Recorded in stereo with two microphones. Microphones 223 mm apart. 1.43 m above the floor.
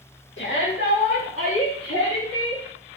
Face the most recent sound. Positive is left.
turn(degrees=80)